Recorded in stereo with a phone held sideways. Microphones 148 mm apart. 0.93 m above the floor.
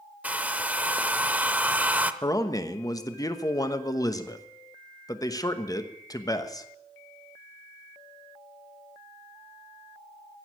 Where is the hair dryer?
10° right (ahead or behind), 0.6 m.